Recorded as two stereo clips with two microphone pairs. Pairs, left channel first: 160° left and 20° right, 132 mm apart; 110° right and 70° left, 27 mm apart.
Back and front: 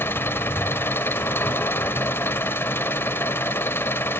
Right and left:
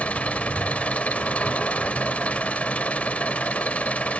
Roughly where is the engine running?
Behind right.